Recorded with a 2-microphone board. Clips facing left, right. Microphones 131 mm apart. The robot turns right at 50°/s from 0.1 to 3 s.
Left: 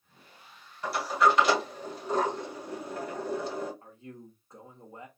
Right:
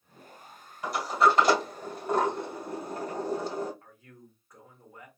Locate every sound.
0.8 s a sliding door: 15° right (ahead or behind), 1.7 m; by 3.7 s 45° right (ahead or behind), 1.7 m
3.8 s a man speaking: 25° left (ahead or behind), 0.9 m